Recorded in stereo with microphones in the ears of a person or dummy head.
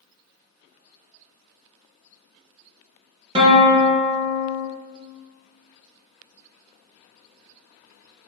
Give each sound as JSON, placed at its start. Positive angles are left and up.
{"t": 3.4, "sound": "a guitar", "side_deg": -20, "distance_m": 1.2}